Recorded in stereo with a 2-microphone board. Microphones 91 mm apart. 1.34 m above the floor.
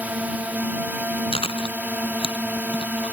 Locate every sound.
0.0 s a drone: 15° right (ahead or behind)
1.3 s chewing: 85° left